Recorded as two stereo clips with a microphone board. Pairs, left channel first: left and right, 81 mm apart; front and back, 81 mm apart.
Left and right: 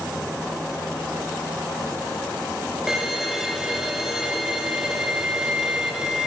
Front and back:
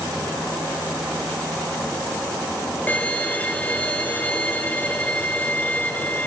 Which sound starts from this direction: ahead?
A violin, at 2.9 s.